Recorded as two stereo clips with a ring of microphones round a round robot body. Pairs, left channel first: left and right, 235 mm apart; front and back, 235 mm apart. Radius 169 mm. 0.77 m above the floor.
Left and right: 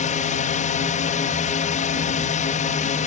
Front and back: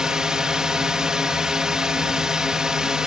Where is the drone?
95° left.